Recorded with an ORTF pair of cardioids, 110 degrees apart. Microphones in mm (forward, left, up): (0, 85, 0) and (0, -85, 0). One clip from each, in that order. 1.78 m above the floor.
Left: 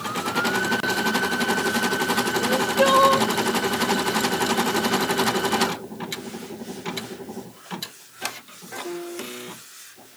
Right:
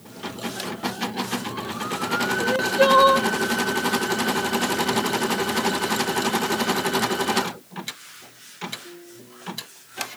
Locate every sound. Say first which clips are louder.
2.4 s crying: right 2 dB; 20° right